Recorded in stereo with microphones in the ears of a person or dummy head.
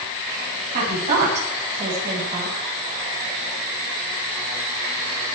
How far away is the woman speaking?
About 9 m.